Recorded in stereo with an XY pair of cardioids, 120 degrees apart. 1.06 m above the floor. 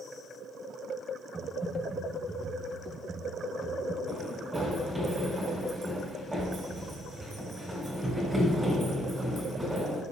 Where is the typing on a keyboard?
15° right, 2 m.